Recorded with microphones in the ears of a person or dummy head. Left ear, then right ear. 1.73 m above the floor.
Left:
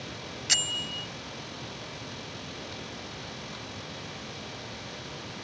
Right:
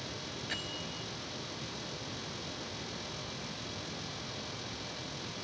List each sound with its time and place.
0.5 s a bell: 90° left